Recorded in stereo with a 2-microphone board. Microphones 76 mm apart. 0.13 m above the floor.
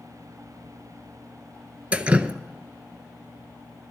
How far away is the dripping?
About 0.6 m.